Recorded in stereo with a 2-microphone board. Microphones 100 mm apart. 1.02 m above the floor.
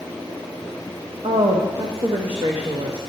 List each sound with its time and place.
1.2 s a woman speaking: 75° right (ahead or behind), 0.7 m